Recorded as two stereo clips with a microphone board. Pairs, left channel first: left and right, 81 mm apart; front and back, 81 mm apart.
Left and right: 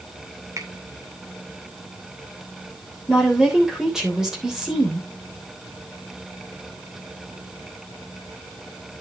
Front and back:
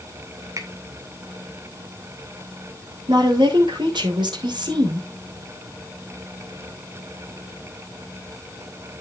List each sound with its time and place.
0.6 s a finger snap: 135° right, 2.5 m
3.1 s a woman speaking: 175° right, 3.5 m